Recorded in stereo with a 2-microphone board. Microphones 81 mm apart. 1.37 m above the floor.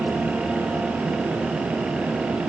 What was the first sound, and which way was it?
Only background noise.